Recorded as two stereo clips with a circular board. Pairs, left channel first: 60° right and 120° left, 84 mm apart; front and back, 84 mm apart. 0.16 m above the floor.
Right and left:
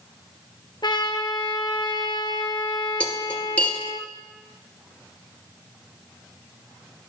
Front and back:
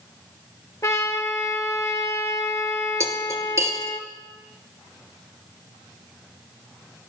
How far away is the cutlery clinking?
About 1.9 m.